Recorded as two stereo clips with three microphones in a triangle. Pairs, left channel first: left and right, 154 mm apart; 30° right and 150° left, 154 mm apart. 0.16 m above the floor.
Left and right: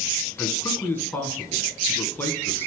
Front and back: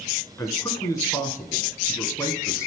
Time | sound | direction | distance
0.4 | a man speaking | 25° left | 1.5 m